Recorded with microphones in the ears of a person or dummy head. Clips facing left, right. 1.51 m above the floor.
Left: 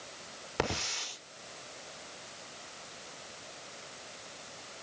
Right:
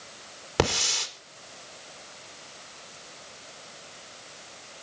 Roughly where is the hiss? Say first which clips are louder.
Right 8 dB; right.